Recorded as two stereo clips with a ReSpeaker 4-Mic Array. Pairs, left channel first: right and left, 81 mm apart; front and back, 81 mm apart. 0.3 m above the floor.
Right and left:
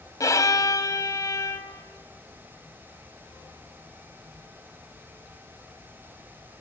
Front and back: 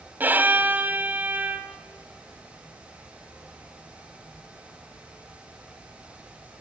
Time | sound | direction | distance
0.2 | a violin | 120° right | 1.4 m